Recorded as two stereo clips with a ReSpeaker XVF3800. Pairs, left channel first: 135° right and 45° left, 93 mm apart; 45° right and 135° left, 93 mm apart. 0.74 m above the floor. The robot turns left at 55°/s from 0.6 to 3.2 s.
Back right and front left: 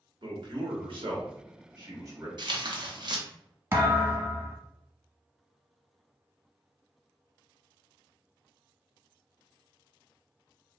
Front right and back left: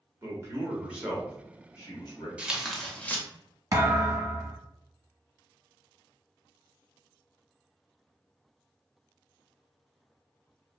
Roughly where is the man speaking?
Left.